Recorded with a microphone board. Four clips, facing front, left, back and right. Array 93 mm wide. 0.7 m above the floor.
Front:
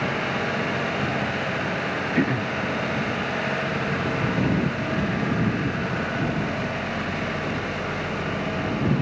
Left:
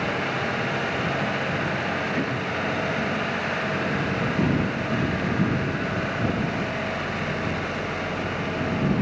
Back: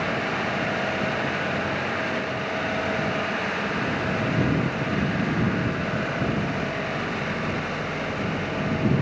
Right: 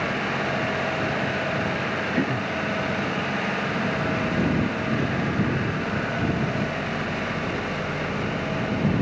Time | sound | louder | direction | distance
2.1 | throat clearing | right 2 dB, front 4 dB | 20° right | ?